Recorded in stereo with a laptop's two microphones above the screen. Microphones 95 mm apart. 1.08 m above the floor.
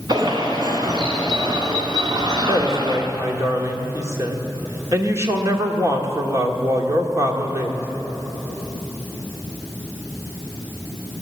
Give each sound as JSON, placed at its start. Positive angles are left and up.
{"t": 0.1, "sound": "a bird", "side_deg": -55, "distance_m": 2.0}
{"t": 2.5, "sound": "a woman speaking", "side_deg": -30, "distance_m": 2.5}